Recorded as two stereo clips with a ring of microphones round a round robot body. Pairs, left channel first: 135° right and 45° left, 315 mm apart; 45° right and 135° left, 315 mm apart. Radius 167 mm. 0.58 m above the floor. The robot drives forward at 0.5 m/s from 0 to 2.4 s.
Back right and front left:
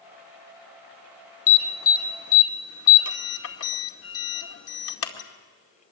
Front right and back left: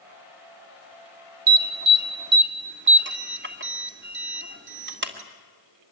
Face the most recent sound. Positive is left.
turn(degrees=-175)